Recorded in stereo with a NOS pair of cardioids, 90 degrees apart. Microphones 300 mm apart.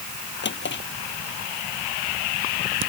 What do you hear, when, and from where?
0.4 s a drawer: 40° left